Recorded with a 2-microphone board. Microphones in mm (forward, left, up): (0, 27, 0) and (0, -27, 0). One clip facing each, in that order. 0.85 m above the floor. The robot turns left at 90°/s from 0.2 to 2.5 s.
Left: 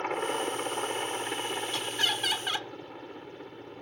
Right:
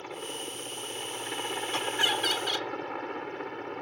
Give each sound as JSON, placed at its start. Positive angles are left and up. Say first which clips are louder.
{"t": 0.0, "sound": "a helicopter", "louder": "left 8 dB", "azimuth_deg": 120}
{"t": 1.7, "sound": "laughter", "louder": "right 5 dB", "azimuth_deg": -135}